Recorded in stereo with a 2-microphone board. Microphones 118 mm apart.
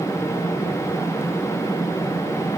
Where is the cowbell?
No cowbell in this recording.